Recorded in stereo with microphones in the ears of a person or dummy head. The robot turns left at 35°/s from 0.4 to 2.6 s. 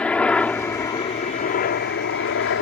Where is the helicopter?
175° left; by 2.6 s 95° left.